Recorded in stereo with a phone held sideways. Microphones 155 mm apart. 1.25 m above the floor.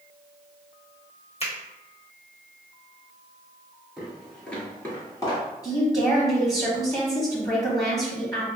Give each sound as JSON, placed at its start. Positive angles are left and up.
{"t": 1.4, "sound": "a finger snap", "side_deg": 40, "distance_m": 1.1}
{"t": 4.0, "sound": "footsteps", "side_deg": -5, "distance_m": 1.3}
{"t": 5.6, "sound": "a woman speaking", "side_deg": 20, "distance_m": 1.0}